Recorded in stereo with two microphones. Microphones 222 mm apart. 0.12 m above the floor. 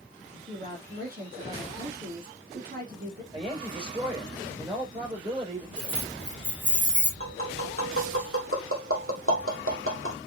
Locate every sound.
0.5 s a woman speaking: 40° right (ahead or behind), 4 m
3.3 s a woman speaking: 20° right (ahead or behind), 5.5 m
5.8 s keys jangling: 55° right (ahead or behind), 3.5 m
7.2 s tapping: 75° right (ahead or behind), 2.5 m